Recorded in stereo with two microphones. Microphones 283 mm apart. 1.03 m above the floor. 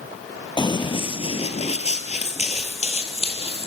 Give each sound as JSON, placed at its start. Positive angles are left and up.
{"t": 0.6, "sound": "running footsteps", "side_deg": 15, "distance_m": 1.2}